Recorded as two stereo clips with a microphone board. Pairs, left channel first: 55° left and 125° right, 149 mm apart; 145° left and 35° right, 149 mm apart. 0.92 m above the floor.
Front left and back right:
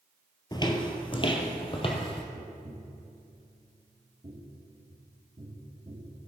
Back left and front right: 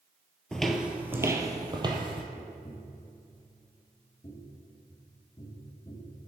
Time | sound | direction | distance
0.5 | footsteps | 65° left | 1.0 m
2.3 | tapping | 170° right | 1.1 m